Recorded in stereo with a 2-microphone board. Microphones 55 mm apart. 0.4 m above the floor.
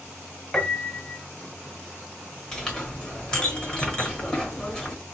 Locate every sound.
0.5 s a piano: 15° left (ahead or behind), 0.6 m
2.5 s a clink: 10° left (ahead or behind), 1.2 m